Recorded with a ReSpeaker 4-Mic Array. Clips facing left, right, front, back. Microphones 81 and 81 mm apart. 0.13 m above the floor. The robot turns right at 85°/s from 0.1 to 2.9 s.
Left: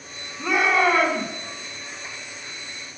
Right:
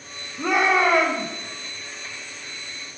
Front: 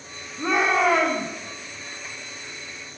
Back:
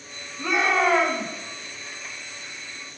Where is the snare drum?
I don't hear a snare drum.